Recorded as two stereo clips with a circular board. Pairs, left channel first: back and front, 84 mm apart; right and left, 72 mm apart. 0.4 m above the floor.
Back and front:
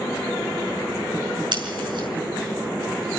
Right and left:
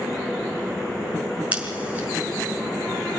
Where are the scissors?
20° left, 6 m.